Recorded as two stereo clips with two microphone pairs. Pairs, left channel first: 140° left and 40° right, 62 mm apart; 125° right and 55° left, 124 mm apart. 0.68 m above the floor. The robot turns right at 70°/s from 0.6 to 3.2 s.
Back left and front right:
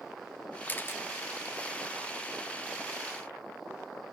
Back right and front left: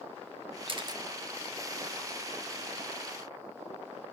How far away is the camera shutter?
About 0.9 m.